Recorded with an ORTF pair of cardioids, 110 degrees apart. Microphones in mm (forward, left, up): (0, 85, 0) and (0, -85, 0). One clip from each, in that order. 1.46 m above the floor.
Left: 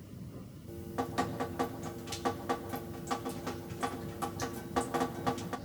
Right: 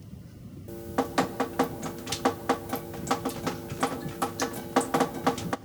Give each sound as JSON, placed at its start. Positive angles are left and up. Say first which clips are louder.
{"t": 0.7, "sound": "dripping", "louder": "right 8 dB", "azimuth_deg": -50, "distance_m": 0.8}